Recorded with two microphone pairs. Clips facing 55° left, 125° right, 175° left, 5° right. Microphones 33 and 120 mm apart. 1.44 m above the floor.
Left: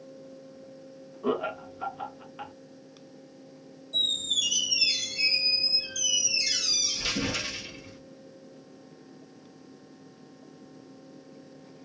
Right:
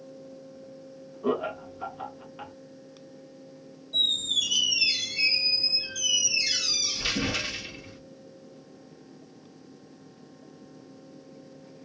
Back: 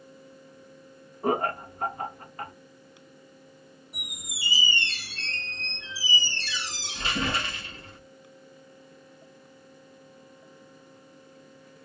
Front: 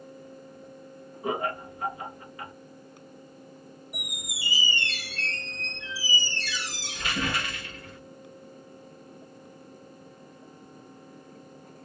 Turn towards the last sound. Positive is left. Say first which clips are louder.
# right 2 dB, front 2 dB
turn(degrees=-175)